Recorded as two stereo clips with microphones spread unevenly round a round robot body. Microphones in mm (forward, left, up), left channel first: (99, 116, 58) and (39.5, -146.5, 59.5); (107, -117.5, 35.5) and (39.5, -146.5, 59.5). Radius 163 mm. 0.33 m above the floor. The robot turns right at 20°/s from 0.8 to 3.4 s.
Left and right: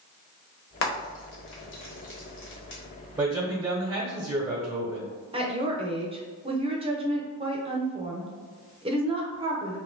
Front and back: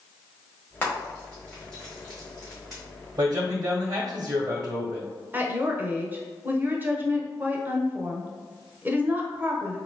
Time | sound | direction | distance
0.8 | frying | 65° left | 1.3 m
3.2 | a man speaking | straight behind | 1.1 m
5.3 | a woman speaking | 85° right | 0.8 m